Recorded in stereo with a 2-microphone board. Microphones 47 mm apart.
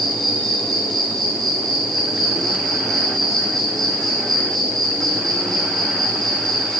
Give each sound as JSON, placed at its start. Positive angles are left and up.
{"t": 0.0, "sound": "an insect", "side_deg": -5, "distance_m": 5.0}